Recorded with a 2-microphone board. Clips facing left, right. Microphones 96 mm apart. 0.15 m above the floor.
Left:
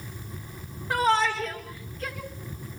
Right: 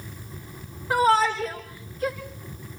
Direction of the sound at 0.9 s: 5° right (ahead or behind).